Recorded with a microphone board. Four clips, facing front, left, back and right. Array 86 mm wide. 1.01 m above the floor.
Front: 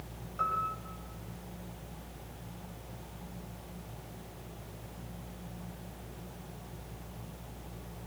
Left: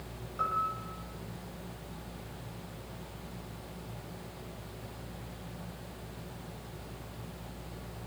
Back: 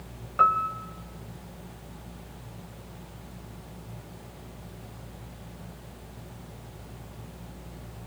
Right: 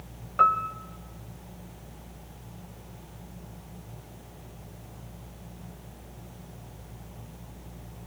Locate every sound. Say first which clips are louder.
0.4 s a piano: right 9 dB, back 10 dB; 135° right, 1.5 m